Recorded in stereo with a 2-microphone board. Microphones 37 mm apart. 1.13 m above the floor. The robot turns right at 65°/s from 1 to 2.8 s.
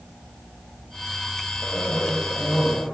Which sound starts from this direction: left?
A cough, at 1.6 s.